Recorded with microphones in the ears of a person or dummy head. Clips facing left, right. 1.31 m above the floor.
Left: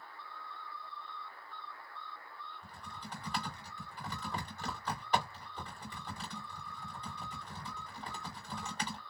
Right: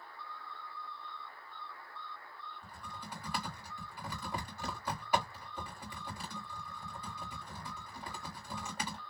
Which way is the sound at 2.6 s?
10° right (ahead or behind).